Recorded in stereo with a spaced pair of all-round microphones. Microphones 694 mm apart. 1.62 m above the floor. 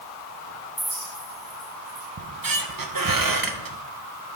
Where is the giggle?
No giggle in this recording.